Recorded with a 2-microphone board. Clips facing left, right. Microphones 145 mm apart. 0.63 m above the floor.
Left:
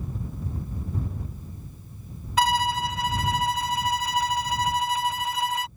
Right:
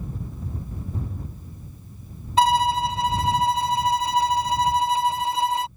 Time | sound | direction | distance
2.4 | a violin | 30° right (ahead or behind) | ?